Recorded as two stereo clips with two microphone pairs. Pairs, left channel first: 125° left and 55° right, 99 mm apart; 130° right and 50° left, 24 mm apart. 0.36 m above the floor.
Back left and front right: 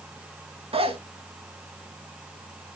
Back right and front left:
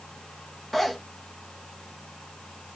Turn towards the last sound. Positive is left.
turn(degrees=-50)